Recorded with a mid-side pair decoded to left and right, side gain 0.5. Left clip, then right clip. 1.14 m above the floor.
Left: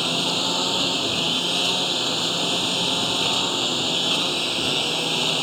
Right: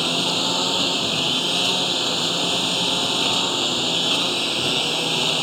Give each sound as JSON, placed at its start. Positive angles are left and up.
{"t": 0.0, "sound": "a lawn mower", "azimuth_deg": -10}